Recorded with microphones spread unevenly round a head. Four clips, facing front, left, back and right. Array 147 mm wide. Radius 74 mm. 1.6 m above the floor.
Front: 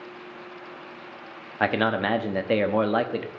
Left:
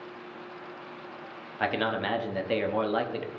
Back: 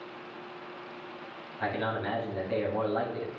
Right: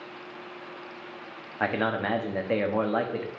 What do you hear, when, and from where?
1.6 s a man speaking: 10° right, 0.9 m